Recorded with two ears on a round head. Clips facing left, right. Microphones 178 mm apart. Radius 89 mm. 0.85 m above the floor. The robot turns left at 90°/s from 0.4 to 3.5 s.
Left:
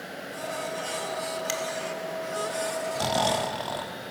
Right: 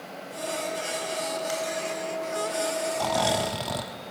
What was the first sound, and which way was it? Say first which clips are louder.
A finger snap: right 2 dB; 40° left (ahead or behind).